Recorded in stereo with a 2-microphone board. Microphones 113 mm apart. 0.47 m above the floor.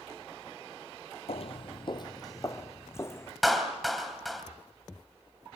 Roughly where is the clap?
Centre.